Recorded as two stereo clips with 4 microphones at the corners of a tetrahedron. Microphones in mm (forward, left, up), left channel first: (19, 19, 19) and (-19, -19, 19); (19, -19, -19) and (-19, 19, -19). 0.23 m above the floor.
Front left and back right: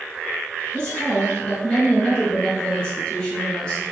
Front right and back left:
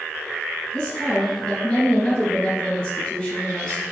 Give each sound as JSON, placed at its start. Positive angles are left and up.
{"t": 0.7, "sound": "a woman speaking", "azimuth_deg": 0, "distance_m": 1.4}